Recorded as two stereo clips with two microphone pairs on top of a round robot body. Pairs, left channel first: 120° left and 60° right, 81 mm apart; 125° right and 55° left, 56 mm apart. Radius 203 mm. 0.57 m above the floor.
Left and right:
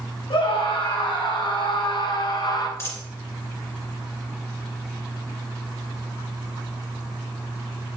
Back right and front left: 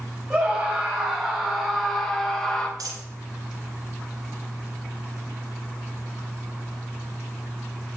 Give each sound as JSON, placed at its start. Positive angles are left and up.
{"t": 0.3, "sound": "a scream", "azimuth_deg": 125, "distance_m": 4.5}
{"t": 2.8, "sound": "a dropped coin", "azimuth_deg": 60, "distance_m": 1.9}